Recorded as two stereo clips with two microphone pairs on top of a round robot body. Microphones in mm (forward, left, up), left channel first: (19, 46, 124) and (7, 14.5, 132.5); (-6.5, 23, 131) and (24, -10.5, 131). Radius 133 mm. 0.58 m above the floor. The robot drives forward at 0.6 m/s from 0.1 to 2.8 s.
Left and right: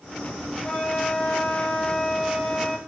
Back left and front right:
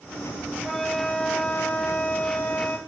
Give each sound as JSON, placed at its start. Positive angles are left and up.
{"t": 0.6, "sound": "a flute", "azimuth_deg": 45, "distance_m": 1.2}